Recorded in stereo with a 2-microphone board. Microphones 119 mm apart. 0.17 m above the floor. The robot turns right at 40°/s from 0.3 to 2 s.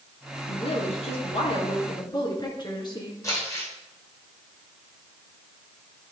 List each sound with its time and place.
0.5 s a woman speaking: 70° left, 2 m; by 3.1 s 135° left, 2 m
3.2 s crumpling: 25° left (ahead or behind), 4.5 m